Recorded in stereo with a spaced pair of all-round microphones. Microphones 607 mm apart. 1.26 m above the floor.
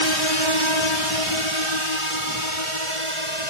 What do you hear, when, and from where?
0.0 s a drone: 45° left (ahead or behind); by 3.5 s 55° left (ahead or behind)